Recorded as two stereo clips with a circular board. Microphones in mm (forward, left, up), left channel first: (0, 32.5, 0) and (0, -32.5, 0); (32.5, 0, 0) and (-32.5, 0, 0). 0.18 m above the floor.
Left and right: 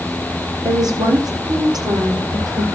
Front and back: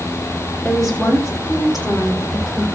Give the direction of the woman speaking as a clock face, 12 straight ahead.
3 o'clock.